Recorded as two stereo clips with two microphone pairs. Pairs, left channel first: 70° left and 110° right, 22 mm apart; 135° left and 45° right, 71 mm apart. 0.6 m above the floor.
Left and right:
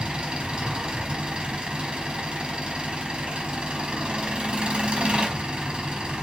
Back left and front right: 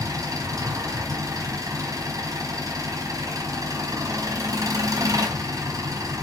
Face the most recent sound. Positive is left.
turn(degrees=-80)